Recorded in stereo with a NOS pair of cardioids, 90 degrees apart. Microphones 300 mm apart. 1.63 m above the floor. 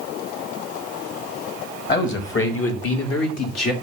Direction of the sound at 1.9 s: 40° left.